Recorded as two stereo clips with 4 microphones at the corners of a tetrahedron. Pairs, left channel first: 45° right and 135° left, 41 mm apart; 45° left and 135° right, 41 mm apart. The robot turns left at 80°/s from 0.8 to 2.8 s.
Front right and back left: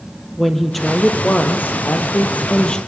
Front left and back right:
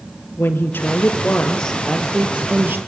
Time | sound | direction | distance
0.4 | a woman speaking | 45° left | 2.5 m